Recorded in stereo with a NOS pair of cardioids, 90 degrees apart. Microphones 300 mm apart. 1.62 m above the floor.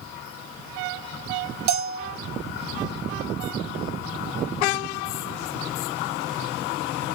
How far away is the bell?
About 0.9 m.